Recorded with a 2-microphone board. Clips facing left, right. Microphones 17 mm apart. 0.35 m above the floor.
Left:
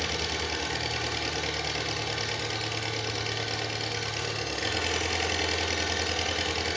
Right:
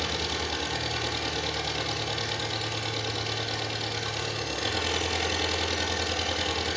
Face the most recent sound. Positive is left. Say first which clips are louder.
# even
turn(degrees=25)  # may be behind; listen again after turning